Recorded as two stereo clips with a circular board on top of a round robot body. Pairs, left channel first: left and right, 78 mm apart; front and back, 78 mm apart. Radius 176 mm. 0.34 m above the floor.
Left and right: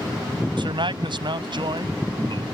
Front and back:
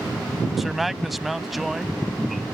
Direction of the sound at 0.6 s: 90° right.